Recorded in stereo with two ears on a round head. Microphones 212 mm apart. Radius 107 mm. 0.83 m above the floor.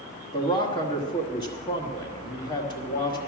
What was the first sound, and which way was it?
A man speaking, 20° left (ahead or behind).